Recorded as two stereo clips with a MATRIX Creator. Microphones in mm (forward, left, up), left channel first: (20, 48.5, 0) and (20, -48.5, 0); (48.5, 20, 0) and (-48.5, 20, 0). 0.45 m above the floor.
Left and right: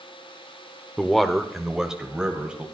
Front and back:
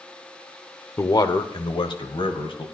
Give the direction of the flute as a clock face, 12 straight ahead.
I don't hear a flute.